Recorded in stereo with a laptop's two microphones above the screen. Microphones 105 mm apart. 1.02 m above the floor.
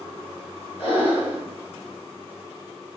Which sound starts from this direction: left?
Breathing, at 0.8 s.